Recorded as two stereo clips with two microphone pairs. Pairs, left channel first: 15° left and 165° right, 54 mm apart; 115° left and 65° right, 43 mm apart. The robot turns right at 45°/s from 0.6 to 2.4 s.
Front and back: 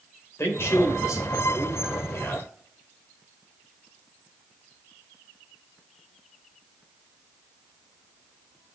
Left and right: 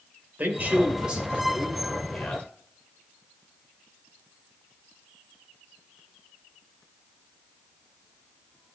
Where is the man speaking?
20° right, 2.5 m; by 2.5 s 60° left, 2.5 m.